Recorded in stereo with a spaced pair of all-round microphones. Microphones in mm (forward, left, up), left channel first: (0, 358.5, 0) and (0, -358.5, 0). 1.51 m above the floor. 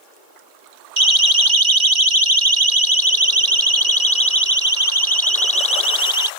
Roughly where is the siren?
Right.